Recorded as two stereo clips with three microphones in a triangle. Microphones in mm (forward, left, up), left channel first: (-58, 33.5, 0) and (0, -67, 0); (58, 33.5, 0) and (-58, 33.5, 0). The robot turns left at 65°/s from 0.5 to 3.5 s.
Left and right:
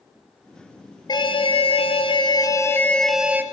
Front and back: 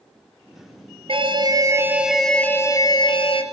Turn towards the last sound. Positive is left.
turn(degrees=5)